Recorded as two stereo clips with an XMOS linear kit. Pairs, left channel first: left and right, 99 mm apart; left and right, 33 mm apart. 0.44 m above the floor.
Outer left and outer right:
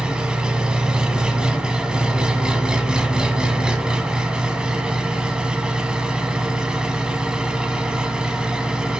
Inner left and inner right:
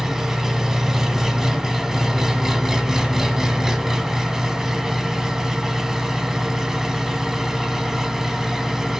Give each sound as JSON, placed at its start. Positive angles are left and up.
{"t": 0.0, "sound": "an engine running", "side_deg": -10, "distance_m": 1.2}